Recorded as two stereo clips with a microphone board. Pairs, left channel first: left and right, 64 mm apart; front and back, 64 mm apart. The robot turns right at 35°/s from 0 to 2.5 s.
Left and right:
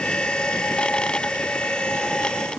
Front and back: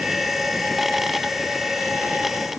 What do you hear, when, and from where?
Only background noise.